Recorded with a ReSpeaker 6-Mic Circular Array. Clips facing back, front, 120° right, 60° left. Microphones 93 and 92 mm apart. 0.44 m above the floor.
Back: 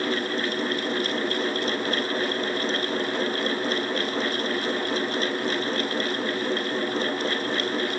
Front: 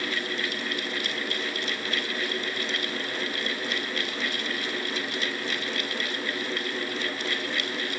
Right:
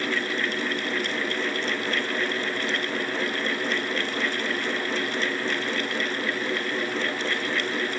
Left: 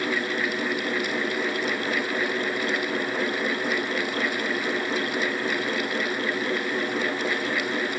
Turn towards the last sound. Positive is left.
No sound to turn to.